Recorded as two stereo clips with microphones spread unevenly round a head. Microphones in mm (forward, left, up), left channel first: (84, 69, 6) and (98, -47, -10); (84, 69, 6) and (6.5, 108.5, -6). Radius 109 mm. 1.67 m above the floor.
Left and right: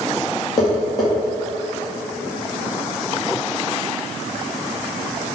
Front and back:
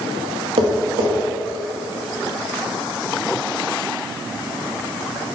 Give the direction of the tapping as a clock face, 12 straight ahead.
6 o'clock.